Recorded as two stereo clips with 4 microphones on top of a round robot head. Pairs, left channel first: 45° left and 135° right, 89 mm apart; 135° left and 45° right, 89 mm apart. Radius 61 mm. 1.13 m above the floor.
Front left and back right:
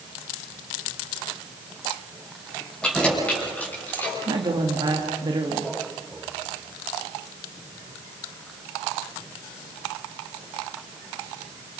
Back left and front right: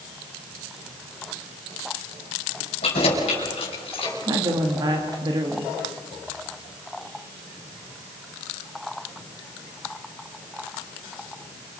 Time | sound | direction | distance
2.8 | keys jangling | 125° left | 5 m
4.3 | a woman speaking | 90° right | 1.8 m